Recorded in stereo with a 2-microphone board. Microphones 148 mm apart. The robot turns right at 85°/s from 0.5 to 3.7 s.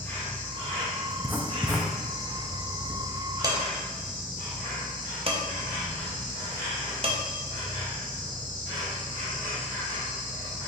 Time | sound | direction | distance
0.0 | an insect | 15° left | 1.5 m
1.1 | writing | 15° right (ahead or behind) | 0.6 m
3.4 | dishes clattering | 25° right (ahead or behind) | 0.8 m